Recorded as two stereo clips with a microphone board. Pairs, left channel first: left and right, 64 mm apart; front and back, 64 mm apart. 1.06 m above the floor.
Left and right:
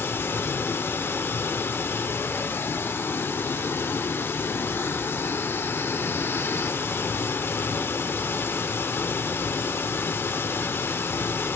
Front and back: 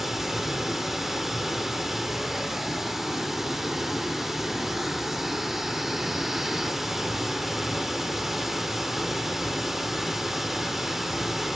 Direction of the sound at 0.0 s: 95° left.